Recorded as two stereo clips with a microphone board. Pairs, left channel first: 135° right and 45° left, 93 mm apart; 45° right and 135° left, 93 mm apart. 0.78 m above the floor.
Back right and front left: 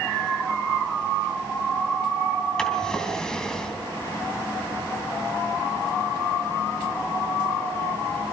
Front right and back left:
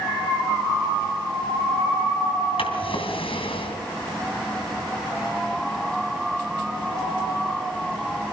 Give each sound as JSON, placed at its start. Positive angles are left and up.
{"t": 2.6, "sound": "a drawer", "azimuth_deg": -55, "distance_m": 3.0}